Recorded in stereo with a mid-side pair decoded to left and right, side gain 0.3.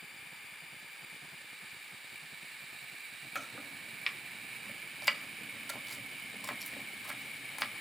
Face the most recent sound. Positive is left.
turn(degrees=0)